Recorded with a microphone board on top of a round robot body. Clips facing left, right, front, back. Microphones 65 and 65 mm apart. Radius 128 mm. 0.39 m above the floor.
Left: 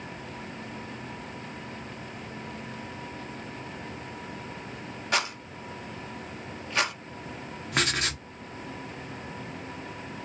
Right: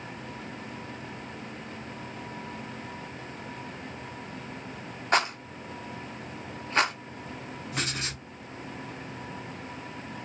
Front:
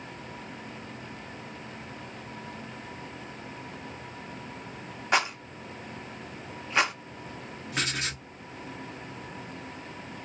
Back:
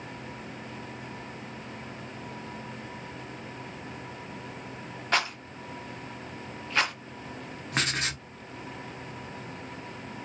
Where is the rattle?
70° right, 1.0 m.